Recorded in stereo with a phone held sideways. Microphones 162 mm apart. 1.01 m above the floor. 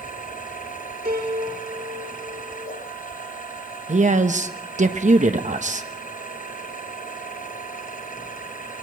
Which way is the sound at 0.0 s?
60° left (ahead or behind).